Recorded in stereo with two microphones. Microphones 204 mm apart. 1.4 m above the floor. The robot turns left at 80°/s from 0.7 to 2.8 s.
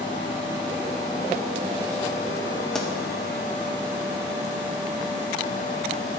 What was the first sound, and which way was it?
A pop, centre (ahead or behind).